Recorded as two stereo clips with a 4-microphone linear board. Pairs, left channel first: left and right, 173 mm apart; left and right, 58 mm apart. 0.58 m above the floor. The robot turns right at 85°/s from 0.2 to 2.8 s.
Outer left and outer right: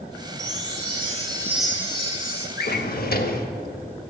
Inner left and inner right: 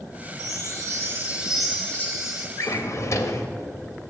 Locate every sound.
0.4 s a chime: 105° right, 1.3 m; by 2.5 s 70° left, 1.3 m
2.6 s a drawer: 65° left (ahead or behind), 0.5 m